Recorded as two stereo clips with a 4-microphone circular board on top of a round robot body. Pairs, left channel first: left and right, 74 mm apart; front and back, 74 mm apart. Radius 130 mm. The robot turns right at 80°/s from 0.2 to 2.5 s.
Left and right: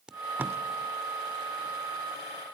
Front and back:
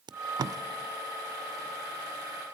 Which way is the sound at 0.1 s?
170° right.